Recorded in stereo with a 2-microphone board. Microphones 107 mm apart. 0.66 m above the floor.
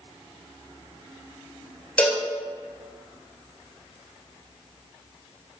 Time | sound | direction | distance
2.0 | a cowbell | 10° left (ahead or behind) | 2.5 m